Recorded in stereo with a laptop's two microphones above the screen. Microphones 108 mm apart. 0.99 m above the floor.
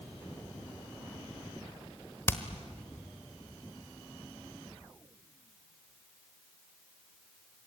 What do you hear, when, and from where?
2.3 s hammering: 25° left (ahead or behind), 1.2 m